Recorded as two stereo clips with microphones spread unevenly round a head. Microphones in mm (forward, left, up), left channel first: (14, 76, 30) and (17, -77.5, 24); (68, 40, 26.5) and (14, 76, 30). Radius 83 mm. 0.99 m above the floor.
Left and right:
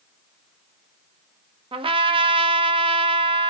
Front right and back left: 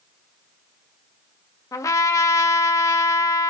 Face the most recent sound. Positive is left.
turn(degrees=-40)